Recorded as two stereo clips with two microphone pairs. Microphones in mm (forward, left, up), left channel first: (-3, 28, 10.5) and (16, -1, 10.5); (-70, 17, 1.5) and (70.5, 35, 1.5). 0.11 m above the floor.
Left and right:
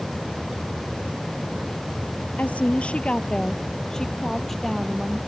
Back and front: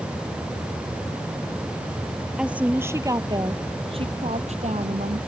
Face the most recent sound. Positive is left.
turn(degrees=30)